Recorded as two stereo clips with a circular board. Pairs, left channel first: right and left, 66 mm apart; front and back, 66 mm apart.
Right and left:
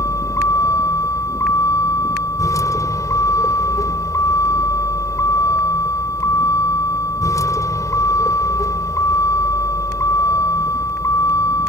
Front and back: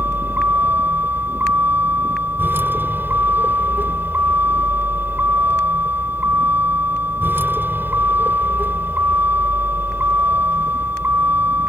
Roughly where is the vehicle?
Behind right.